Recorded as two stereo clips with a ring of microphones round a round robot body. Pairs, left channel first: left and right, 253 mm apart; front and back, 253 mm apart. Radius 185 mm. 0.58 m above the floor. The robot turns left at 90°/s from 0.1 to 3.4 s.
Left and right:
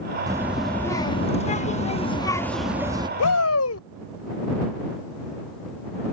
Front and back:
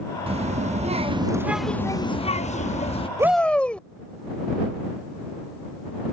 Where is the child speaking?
145° right; by 3.1 s 40° right.